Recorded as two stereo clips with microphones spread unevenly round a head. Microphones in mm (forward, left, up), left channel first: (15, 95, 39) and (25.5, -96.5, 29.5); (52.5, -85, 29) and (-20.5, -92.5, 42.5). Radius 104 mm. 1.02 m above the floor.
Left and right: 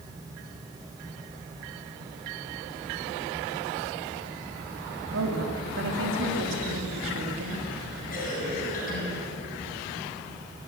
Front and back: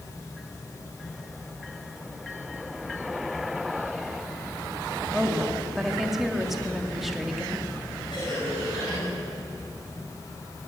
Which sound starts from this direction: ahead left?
A cough, at 8.1 s.